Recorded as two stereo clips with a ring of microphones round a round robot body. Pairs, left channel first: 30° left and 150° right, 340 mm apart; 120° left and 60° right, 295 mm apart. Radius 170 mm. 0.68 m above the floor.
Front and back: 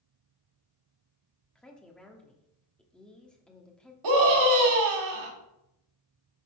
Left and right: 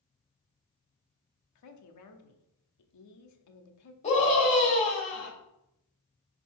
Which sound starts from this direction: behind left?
A woman speaking, at 1.6 s.